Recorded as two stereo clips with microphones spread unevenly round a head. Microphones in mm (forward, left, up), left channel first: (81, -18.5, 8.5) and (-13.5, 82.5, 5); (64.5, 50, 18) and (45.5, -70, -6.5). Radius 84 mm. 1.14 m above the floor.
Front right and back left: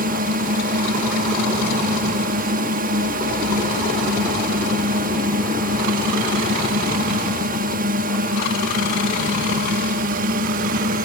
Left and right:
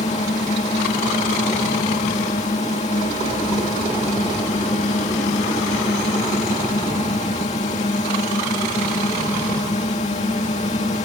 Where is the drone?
130° left.